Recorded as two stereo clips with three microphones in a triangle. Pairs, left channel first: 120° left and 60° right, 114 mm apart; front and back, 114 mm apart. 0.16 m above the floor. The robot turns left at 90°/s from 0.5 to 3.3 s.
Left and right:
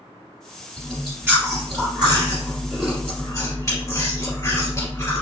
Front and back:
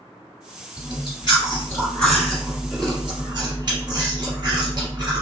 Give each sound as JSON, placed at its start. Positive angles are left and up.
{"t": 0.8, "sound": "chewing", "azimuth_deg": 35, "distance_m": 1.5}